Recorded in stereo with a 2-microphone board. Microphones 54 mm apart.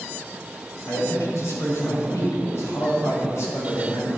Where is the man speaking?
65° left (ahead or behind), 3.5 m.